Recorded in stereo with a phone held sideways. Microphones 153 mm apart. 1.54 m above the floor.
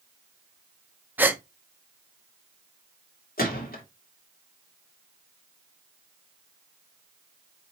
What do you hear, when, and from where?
1.2 s a gasp: 10° right (ahead or behind), 0.7 m
3.4 s a gunshot: 80° left, 2 m